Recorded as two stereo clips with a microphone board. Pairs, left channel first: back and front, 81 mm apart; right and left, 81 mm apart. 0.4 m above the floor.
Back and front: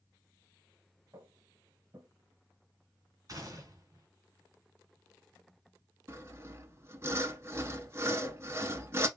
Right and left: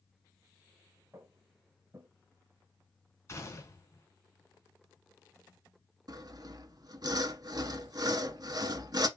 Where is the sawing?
55° left, 0.7 m.